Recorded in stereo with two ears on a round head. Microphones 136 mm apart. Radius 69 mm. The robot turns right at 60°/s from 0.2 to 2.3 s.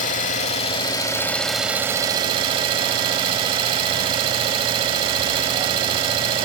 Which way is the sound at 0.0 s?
100° left.